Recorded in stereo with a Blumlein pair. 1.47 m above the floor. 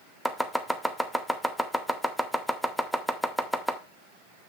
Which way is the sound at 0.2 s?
Straight ahead.